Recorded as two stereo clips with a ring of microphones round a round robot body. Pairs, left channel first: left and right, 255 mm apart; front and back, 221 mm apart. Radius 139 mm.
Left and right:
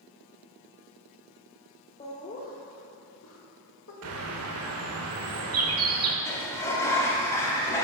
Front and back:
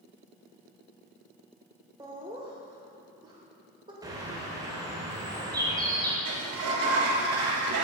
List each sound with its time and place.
2.0 s laughter: 125° left, 0.8 m
4.0 s a bird: 105° right, 0.9 m
6.2 s a sliding door: 170° left, 0.9 m